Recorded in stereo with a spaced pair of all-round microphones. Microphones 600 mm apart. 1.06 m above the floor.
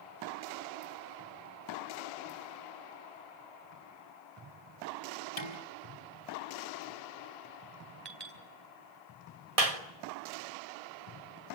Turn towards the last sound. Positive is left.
turn(degrees=-65)  # may be behind; listen again after turning